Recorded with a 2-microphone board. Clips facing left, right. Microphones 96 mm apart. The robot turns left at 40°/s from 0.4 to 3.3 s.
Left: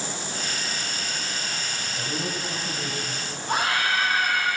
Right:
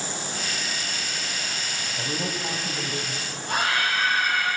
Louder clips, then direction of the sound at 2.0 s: Right 1 dB; 30° right (ahead or behind).